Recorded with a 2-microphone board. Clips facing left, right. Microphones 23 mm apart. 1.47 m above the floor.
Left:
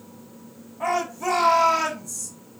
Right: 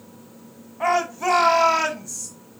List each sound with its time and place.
0.8 s a shout: 25° right (ahead or behind), 1.4 m